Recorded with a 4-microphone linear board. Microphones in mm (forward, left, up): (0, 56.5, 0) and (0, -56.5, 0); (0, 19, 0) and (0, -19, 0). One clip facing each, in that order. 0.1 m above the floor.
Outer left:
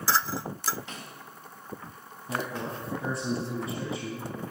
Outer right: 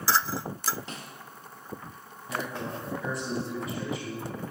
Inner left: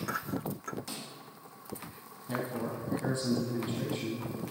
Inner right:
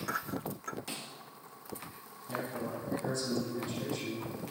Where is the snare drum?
35° right (ahead or behind), 1.6 m.